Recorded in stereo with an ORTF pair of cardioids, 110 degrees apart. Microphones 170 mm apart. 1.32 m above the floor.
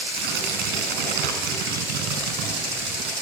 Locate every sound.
0.1 s tearing paper: 70° right, 5.5 m